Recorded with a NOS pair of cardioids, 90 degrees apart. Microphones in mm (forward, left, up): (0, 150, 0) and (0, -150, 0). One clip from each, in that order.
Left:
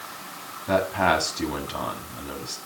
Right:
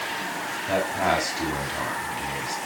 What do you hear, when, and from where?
0.7 s a man speaking: 20° left, 6.5 m